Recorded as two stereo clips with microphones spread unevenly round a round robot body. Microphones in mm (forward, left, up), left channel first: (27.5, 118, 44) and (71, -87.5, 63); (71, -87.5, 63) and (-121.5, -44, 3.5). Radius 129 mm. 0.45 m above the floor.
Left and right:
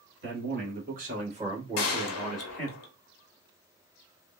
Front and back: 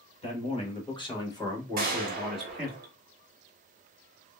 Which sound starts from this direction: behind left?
A gunshot, at 1.8 s.